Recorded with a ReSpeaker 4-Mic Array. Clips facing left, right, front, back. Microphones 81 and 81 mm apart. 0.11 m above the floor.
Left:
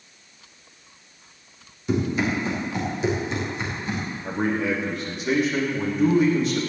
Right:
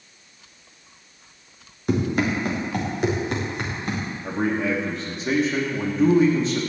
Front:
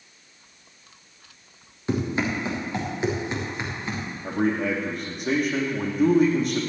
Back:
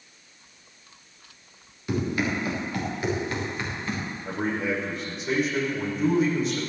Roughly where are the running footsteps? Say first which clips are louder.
Right 1 dB, front 1 dB; ahead right.